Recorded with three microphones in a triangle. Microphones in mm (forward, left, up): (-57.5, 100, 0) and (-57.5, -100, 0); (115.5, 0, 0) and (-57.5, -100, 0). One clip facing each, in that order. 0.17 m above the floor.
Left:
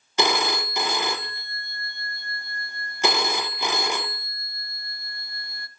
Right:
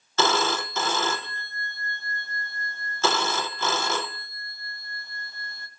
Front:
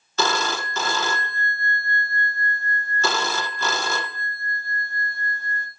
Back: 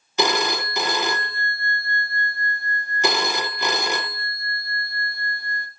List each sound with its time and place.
0.2 s a phone ringing: 150° left, 0.7 m